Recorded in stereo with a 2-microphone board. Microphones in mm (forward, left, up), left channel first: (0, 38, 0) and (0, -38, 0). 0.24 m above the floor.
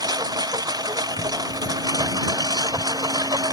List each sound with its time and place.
0.0 s a lawn mower: 60° right (ahead or behind); by 3.5 s 55° right (ahead or behind)